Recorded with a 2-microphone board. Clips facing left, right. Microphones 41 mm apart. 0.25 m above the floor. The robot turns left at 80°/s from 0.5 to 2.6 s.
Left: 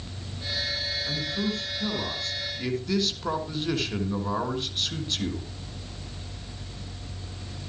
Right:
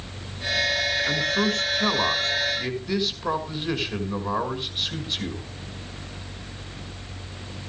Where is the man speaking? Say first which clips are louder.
Right 6 dB; 50° right, 3 m; by 5.5 s 170° right, 3 m.